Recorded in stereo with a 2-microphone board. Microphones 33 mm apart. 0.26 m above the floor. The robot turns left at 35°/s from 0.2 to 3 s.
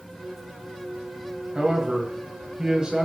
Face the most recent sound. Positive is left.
turn(degrees=-20)  # may be behind; listen again after turning